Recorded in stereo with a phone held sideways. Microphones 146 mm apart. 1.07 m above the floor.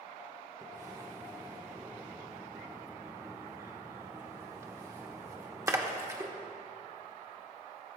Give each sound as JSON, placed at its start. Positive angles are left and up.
{"t": 0.6, "sound": "a splash", "side_deg": -20, "distance_m": 0.9}